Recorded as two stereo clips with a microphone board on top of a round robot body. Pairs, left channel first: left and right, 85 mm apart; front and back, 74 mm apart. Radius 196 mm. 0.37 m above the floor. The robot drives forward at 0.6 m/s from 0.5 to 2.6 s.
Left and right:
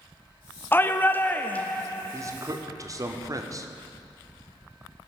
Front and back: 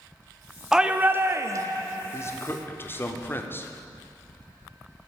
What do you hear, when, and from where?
0.7 s a shout: 105° left, 0.8 m; by 1.8 s 160° left, 1.1 m
2.1 s a man speaking: 45° right, 1.7 m; by 3.7 s 55° right, 1.6 m